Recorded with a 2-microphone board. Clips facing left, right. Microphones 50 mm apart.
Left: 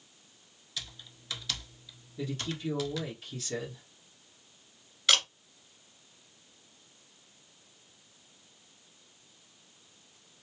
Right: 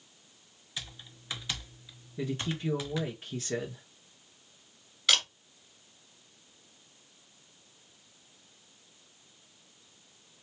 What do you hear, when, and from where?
0.8 s typing on a keyboard: 20° right (ahead or behind), 0.7 m
2.2 s a man speaking: 30° right (ahead or behind), 1.2 m
5.1 s a camera shutter: centre (ahead or behind), 2 m